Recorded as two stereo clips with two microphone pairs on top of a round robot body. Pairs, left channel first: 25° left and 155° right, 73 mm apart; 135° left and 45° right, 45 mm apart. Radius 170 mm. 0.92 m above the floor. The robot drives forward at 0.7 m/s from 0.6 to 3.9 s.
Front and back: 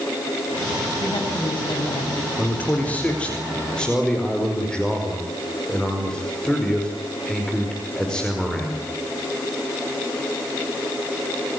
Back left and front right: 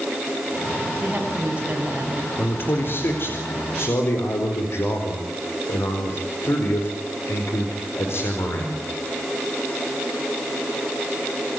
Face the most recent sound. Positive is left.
turn(degrees=105)